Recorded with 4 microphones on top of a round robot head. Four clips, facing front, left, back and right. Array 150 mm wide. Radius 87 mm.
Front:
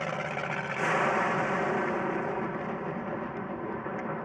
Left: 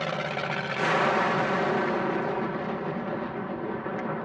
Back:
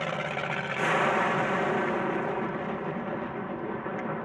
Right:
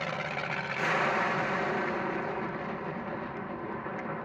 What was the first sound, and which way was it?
An aircraft, 105° left.